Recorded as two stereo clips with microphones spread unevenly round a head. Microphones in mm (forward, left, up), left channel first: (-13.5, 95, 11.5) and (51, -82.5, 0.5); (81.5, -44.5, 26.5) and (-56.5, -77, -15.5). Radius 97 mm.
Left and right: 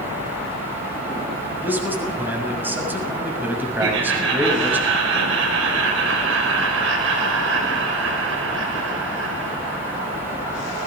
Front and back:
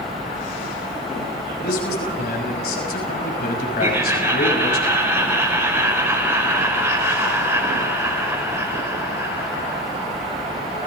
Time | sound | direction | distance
1.6 | a man speaking | 10° left | 6.5 m
3.8 | laughter | 95° right | 4.5 m